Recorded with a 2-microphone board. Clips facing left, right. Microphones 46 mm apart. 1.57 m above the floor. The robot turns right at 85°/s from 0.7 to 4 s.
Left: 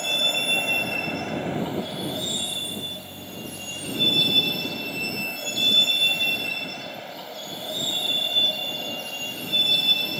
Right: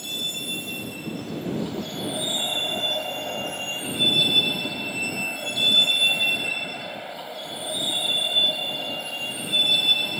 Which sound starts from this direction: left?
A vehicle, at 0.0 s.